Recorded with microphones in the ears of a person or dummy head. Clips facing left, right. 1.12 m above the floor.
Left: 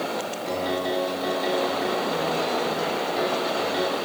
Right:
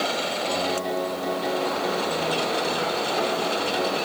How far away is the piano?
About 3.5 m.